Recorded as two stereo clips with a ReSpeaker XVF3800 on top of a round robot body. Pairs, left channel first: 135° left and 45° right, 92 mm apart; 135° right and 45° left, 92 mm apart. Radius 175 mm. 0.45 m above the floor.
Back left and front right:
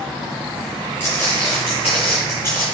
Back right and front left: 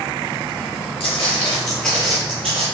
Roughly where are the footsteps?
Behind right.